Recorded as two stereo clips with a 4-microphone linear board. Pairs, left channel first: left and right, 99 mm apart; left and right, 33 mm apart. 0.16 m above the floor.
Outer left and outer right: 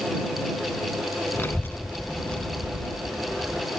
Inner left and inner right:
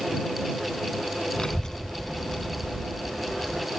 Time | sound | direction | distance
1.4 | a child speaking | 20° left (ahead or behind) | ?